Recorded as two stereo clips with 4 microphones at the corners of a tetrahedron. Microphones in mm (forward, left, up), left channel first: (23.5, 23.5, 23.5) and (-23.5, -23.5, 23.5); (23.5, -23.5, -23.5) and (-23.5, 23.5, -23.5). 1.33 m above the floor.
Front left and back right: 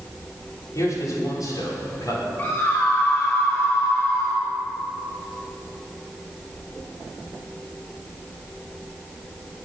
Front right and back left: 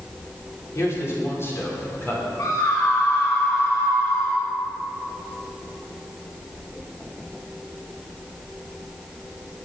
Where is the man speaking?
5° left, 5 m; by 2.3 s 15° left, 5.5 m.